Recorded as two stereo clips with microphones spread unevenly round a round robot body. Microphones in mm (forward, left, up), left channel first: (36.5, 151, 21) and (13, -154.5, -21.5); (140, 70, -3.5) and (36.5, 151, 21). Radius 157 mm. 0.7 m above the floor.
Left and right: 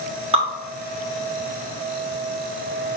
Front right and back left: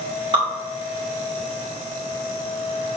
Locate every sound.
0.3 s dripping: 155° right, 1.4 m